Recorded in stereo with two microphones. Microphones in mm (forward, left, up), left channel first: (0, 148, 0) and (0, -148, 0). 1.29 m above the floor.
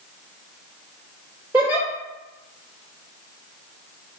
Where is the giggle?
10° right (ahead or behind), 2.5 m.